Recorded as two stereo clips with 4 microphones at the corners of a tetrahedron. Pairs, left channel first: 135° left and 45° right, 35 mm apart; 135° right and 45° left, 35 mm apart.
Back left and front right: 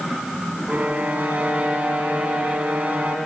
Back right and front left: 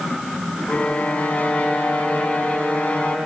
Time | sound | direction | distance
0.7 | a violin | 95° right | 1.3 m